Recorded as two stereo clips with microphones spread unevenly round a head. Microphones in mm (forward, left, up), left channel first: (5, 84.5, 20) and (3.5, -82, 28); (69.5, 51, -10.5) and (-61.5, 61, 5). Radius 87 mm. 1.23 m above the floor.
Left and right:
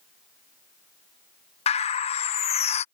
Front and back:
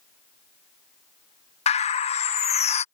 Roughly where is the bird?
Ahead left.